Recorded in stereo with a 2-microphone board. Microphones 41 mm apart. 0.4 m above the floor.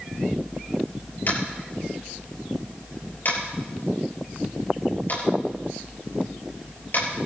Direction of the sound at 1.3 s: 50° left (ahead or behind).